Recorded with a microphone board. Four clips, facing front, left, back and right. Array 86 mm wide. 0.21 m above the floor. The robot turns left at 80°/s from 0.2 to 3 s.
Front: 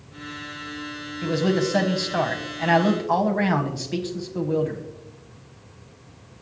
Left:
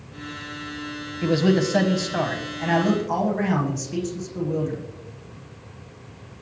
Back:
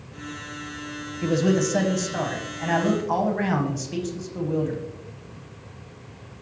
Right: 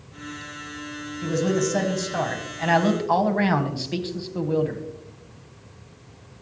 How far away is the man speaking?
About 1.0 m.